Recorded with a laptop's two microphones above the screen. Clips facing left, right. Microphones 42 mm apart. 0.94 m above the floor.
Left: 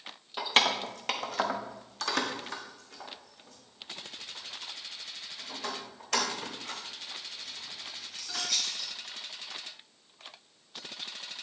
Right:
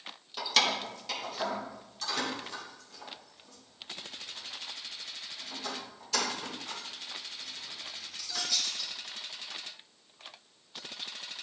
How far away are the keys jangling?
About 0.6 m.